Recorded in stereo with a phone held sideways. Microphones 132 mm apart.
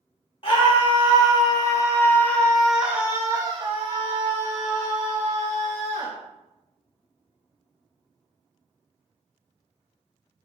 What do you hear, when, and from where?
0.4 s a scream: 40° left (ahead or behind), 1.5 m; by 6.1 s 65° right (ahead or behind), 1.7 m